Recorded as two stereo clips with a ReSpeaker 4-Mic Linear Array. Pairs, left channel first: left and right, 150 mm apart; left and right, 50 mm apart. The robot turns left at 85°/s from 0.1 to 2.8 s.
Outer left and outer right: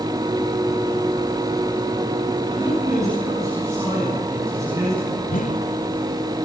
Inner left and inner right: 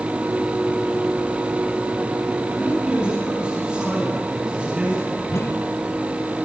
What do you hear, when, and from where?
2.5 s a man speaking: 45° right (ahead or behind), 10 m; by 5.2 s 20° right (ahead or behind), 10 m
5.3 s a whoosh: 65° left (ahead or behind), 1.7 m